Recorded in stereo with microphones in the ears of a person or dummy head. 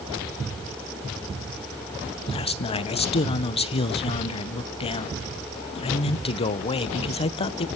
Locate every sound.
2.3 s a man speaking: 30° left (ahead or behind), 0.9 m